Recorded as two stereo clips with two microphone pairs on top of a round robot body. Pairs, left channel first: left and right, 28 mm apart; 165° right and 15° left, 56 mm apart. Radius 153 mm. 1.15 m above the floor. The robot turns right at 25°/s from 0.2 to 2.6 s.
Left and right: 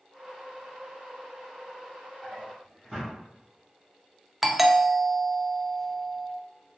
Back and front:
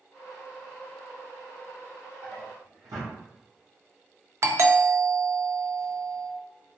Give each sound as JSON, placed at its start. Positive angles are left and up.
{"t": 2.2, "sound": "a drawer", "azimuth_deg": 15, "distance_m": 0.8}
{"t": 4.4, "sound": "a doorbell", "azimuth_deg": 0, "distance_m": 0.6}